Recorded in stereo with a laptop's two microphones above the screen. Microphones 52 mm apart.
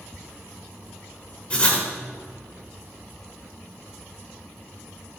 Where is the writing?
25° left (ahead or behind), 1.0 m.